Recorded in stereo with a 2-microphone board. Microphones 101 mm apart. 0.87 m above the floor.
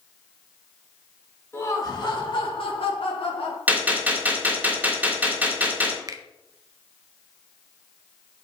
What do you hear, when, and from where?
1.5 s laughter: 25° left (ahead or behind), 1.5 m; by 3.6 s 75° left (ahead or behind), 3.5 m
3.7 s a gunshot: 15° right (ahead or behind), 3 m
6.1 s a finger snap: 35° right (ahead or behind), 0.9 m